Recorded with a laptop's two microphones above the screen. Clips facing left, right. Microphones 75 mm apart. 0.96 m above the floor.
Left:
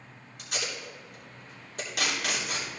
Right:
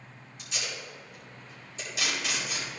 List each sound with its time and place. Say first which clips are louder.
0.4 s tape being pulled: left 2 dB; 60° left (ahead or behind), 3 m